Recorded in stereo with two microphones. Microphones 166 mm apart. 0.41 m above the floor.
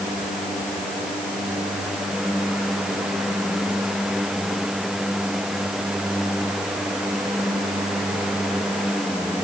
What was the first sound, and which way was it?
Only background noise.